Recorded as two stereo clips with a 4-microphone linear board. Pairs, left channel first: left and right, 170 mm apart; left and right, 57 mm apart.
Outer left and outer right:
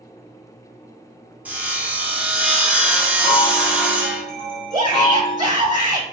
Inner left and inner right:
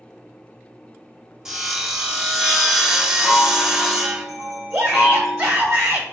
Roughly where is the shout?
Right.